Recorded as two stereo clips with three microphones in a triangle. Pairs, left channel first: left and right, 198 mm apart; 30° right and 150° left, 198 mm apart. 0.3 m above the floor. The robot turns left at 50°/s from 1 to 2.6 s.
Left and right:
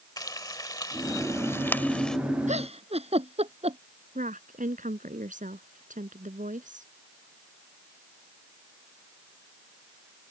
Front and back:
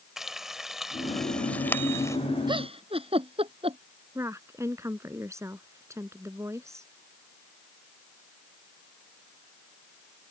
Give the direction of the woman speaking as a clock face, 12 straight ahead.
5 o'clock.